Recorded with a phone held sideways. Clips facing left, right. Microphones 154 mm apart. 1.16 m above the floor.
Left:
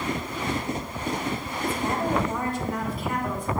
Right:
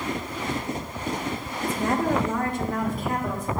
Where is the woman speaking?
75° right (ahead or behind), 1.0 m; by 3.5 s 35° right (ahead or behind), 1.7 m.